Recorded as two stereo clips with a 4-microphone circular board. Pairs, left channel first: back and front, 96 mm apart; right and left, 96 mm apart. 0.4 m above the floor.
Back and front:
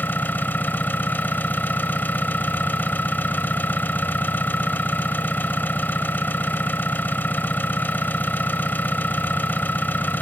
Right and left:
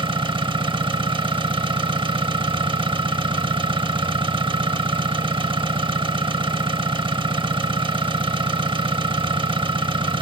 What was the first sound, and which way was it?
An engine running, 110° left.